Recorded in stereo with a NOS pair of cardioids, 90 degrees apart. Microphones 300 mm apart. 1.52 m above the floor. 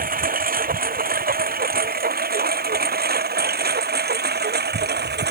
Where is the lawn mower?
30° right; by 5.3 s 35° right.